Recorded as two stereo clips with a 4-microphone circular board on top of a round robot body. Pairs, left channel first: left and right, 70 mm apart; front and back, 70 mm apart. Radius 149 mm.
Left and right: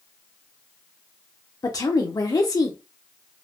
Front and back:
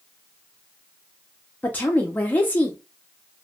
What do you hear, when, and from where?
1.6 s a woman speaking: 65° left, 0.7 m